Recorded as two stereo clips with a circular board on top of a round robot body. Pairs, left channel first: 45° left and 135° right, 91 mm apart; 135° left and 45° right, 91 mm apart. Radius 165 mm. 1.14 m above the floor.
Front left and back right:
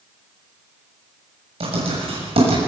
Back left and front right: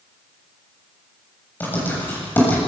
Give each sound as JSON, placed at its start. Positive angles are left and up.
{"t": 1.6, "sound": "writing", "azimuth_deg": -155, "distance_m": 7.5}